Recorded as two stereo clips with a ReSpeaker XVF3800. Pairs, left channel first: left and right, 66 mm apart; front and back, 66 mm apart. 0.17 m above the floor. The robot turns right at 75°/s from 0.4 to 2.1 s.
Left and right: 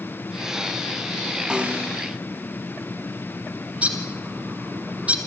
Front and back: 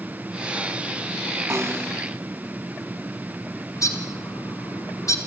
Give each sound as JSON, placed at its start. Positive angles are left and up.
{"t": 1.5, "sound": "a snare drum", "azimuth_deg": -165, "distance_m": 2.0}
{"t": 3.8, "sound": "a bird", "azimuth_deg": -20, "distance_m": 2.5}